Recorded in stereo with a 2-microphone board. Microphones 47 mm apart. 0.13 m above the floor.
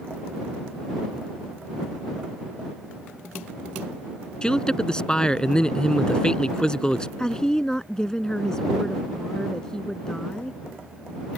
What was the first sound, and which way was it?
A man speaking, 20° left (ahead or behind).